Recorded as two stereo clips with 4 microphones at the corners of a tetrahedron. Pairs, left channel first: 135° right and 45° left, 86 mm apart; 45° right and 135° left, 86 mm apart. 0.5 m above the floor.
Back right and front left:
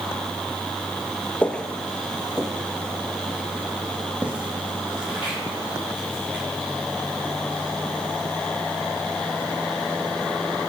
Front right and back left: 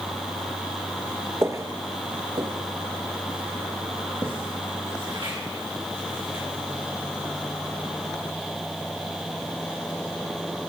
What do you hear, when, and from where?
1.4 s footsteps: 160° left, 0.5 m; by 6.4 s 120° left, 3.5 m